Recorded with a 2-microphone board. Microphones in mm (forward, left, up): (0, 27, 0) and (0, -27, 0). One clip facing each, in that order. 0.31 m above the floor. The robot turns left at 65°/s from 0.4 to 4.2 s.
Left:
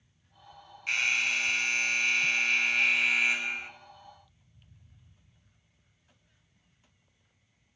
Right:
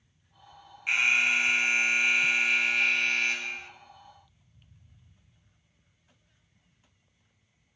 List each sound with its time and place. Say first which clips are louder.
0.9 s an alarm: right 4 dB; 15° right (ahead or behind), 0.6 m; by 3.7 s 15° left (ahead or behind), 0.6 m